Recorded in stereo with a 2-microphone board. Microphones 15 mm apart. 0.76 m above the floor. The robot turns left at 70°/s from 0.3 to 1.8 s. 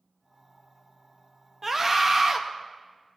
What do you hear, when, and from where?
1.6 s a scream: 20° right (ahead or behind), 0.6 m; by 2.4 s 25° right (ahead or behind), 0.6 m